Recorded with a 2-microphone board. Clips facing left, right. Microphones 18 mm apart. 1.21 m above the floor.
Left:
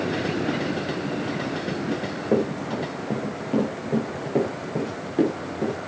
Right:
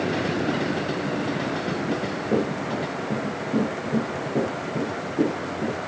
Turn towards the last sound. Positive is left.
turn(degrees=55)  # may be behind; listen again after turning